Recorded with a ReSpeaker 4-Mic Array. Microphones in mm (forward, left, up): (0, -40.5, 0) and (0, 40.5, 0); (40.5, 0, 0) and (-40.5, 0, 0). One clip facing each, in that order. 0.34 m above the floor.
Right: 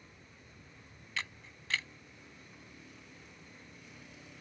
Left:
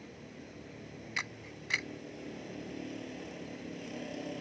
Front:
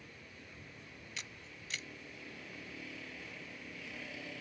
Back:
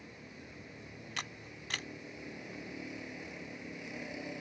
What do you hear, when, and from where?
0.0 s a vehicle: 110° left
1.2 s a camera shutter: 160° left